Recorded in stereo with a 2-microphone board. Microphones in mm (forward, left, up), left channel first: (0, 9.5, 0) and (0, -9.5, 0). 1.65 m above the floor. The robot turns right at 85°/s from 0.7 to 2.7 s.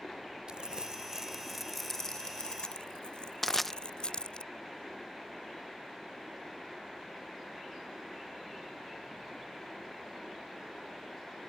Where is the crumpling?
55° right (ahead or behind); by 4.4 s 55° left (ahead or behind).